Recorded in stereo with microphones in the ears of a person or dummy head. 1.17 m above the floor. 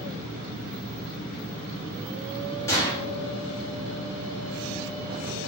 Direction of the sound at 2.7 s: 20° left (ahead or behind).